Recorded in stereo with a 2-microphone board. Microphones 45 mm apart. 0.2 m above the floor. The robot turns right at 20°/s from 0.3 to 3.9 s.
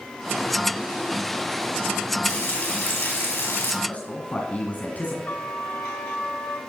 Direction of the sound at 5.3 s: 45° left (ahead or behind).